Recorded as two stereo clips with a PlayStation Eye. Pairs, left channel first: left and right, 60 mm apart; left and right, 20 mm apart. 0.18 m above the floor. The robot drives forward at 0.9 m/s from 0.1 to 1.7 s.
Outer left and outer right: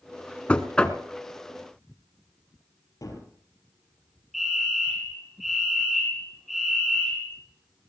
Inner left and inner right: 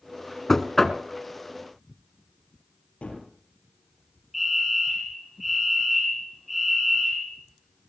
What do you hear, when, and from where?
0.5 s knocking: 20° left (ahead or behind), 1.2 m; by 1.0 s 15° left (ahead or behind), 1.5 m
3.0 s a gunshot: 70° left (ahead or behind), 4 m
4.3 s a fire alarm: 5° right (ahead or behind), 6.5 m